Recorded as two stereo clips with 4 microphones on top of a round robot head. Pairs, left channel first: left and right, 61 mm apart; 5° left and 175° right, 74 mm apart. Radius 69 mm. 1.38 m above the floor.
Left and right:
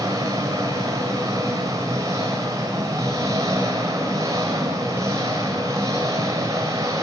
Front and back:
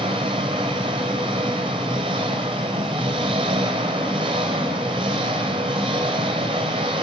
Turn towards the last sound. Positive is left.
turn(degrees=-145)